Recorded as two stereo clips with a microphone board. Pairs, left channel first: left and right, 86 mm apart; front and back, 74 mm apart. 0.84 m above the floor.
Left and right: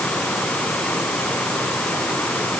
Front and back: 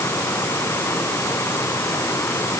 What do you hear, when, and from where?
Only background noise.